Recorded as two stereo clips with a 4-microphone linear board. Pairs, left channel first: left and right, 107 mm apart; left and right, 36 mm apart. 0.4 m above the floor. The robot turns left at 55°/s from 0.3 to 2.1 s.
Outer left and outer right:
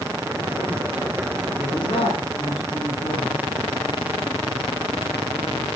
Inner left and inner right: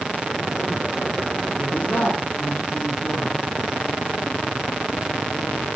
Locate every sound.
1.6 s a man speaking: 40° left (ahead or behind), 4 m; by 3.4 s 65° left (ahead or behind), 4 m